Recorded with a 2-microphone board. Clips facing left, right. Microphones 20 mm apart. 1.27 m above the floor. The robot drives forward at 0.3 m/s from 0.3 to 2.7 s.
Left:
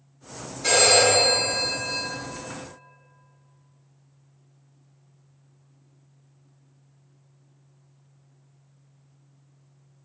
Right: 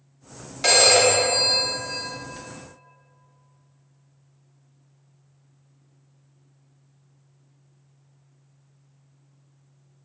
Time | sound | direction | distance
0.6 | a phone ringing | 75° right (ahead or behind) | 0.7 m